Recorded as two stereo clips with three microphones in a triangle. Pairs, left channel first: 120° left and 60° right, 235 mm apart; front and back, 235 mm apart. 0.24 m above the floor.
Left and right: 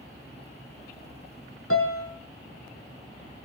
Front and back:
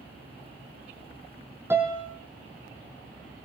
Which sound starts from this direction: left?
A piano, at 1.7 s.